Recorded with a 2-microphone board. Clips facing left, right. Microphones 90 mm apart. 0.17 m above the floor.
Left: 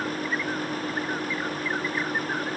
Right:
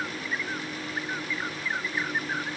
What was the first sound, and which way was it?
Only background noise.